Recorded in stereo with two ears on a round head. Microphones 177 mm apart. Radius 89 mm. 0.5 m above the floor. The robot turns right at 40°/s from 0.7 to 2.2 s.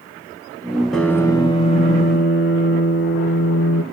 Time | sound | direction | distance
0.9 | a piano | straight ahead | 1.2 m